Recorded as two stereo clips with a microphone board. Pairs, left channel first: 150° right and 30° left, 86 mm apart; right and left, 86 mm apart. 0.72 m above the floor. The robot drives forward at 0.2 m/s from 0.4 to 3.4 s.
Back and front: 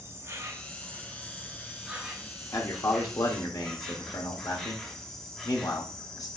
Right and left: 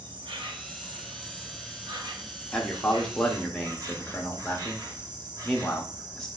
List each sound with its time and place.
0.0 s an insect: 85° left, 0.8 m; by 6.4 s 125° left, 1.0 m
2.5 s a man speaking: 165° right, 0.9 m; by 6.3 s 170° right, 1.1 m